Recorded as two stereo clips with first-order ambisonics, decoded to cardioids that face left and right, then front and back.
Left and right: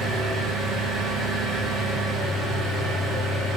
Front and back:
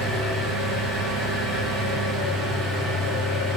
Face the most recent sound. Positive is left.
turn(degrees=-155)